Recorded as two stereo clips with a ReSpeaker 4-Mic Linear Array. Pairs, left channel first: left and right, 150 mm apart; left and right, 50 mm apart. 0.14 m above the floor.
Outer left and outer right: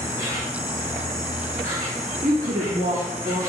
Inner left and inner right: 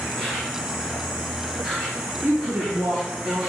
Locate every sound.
0.0 s an insect: 20° right (ahead or behind), 3.5 m
2.2 s a woman speaking: 55° right (ahead or behind), 1.9 m